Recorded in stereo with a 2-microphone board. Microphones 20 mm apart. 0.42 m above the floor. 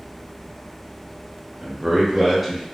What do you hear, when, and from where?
1.6 s a man speaking: 35° right (ahead or behind), 1.2 m; by 2.6 s 5° left (ahead or behind), 1.1 m